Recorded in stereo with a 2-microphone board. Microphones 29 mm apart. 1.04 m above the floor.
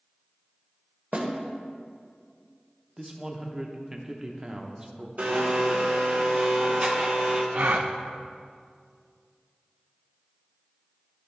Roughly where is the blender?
Right.